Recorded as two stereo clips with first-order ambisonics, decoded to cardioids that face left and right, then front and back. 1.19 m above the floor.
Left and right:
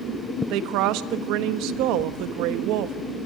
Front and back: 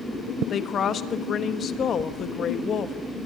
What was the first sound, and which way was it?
A woman speaking, 60° right.